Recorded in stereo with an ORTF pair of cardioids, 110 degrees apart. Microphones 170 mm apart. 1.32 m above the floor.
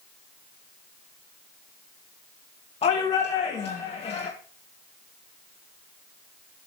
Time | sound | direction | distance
2.8 | a shout | 35° left | 2 m